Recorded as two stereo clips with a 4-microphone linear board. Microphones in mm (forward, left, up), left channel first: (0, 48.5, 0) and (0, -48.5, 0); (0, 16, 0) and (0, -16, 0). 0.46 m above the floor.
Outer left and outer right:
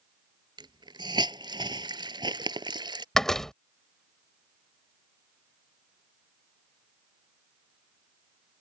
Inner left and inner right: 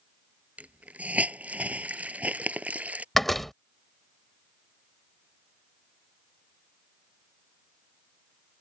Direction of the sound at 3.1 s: 5° left (ahead or behind).